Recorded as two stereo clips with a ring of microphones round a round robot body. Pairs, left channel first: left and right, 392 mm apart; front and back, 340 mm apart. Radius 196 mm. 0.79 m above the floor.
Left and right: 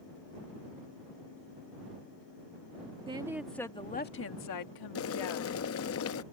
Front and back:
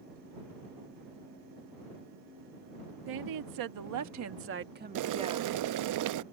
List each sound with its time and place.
3.1 s a woman speaking: 165° right; by 5.5 s 100° left
5.0 s boiling: 145° left